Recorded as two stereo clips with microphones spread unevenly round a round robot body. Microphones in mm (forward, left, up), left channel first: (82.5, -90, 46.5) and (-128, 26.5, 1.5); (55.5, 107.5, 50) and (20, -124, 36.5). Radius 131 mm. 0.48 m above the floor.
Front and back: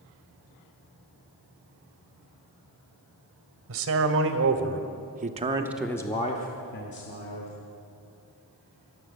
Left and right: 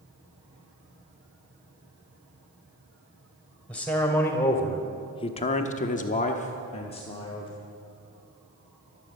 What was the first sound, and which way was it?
A man speaking, 170° left.